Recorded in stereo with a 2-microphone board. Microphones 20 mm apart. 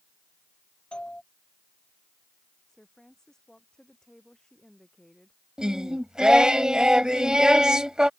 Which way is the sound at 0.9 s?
50° left (ahead or behind).